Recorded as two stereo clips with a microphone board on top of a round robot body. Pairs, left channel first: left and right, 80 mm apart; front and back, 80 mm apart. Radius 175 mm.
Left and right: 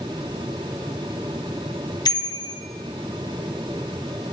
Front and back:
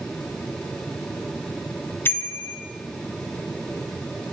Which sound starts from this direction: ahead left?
A bicycle bell, at 2.0 s.